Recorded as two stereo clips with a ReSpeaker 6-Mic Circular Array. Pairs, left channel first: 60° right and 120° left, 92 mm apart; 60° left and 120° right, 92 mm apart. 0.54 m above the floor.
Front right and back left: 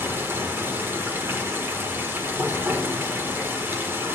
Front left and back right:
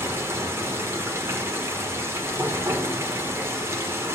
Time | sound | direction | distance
0.0 | running water | 175° right | 1.3 m